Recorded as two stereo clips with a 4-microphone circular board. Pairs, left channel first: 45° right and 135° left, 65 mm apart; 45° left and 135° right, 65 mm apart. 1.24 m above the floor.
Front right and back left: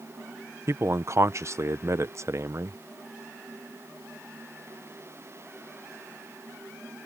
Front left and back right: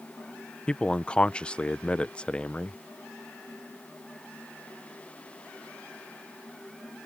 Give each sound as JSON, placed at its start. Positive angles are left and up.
{"t": 0.7, "sound": "a man speaking", "azimuth_deg": 115}